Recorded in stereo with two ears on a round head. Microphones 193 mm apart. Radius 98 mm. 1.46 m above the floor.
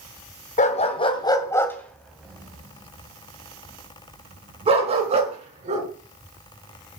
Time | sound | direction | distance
0.6 | a dog barking | 35° left (ahead or behind) | 2 m